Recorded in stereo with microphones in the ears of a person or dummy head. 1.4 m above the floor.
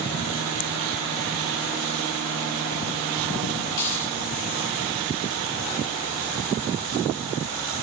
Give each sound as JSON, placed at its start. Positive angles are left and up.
{"t": 3.7, "sound": "a dropped coin", "side_deg": 45, "distance_m": 4.0}